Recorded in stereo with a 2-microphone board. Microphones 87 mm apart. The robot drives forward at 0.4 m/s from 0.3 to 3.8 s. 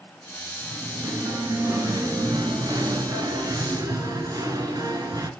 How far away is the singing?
About 1.5 m.